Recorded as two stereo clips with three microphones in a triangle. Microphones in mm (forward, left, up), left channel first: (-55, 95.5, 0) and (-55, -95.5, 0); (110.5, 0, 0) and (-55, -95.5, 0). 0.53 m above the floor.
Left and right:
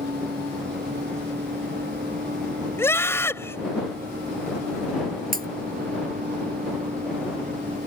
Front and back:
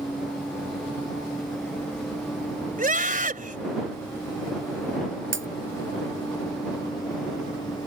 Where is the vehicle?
60° right; by 7.9 s 40° right.